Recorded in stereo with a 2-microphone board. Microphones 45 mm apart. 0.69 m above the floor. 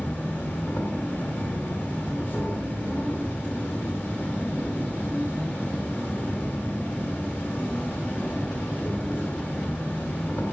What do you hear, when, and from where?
0.0 s an insect: 45° left (ahead or behind), 1.8 m